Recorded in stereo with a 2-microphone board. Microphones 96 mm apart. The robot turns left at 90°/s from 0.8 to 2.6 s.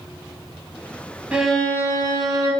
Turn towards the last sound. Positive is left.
turn(degrees=80)